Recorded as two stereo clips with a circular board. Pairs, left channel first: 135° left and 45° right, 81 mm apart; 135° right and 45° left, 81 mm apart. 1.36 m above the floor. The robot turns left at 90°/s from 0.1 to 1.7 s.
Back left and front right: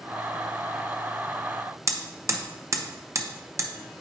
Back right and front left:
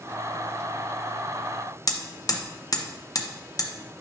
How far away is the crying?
No crying in this recording.